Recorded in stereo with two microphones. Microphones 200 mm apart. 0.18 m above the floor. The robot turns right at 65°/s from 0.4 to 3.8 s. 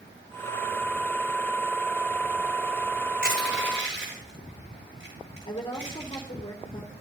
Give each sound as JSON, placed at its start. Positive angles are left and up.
{"t": 3.2, "sound": "crushing", "side_deg": -45, "distance_m": 9.0}
{"t": 5.5, "sound": "a woman speaking", "side_deg": 25, "distance_m": 4.0}